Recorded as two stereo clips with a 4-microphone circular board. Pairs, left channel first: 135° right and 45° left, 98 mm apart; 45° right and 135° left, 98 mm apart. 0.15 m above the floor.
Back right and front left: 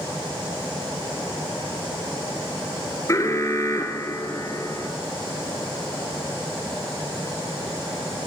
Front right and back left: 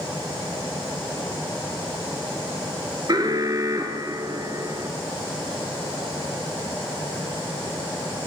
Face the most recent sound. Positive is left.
turn(degrees=175)